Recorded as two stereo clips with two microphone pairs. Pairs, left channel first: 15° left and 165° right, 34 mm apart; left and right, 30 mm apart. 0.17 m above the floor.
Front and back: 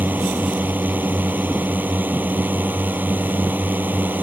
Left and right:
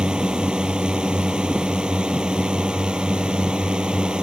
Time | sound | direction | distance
0.0 | a drone | 150° right | ?